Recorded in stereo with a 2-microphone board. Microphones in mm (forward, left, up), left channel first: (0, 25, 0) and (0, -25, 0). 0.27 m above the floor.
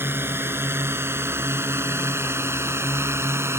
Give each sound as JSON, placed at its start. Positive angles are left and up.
{"t": 0.0, "sound": "a drone", "side_deg": -50}